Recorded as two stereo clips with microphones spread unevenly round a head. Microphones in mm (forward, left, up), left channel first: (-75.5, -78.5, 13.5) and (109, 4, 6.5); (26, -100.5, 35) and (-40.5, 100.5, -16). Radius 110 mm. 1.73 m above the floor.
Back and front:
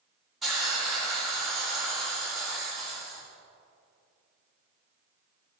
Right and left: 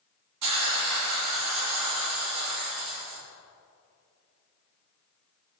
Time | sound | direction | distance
0.4 | a hiss | 115° left | 3.5 m